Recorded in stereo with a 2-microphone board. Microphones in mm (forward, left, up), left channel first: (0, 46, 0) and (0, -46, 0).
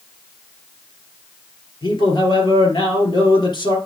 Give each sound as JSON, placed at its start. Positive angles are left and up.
{"t": 1.8, "sound": "a man speaking", "side_deg": 50, "distance_m": 3.0}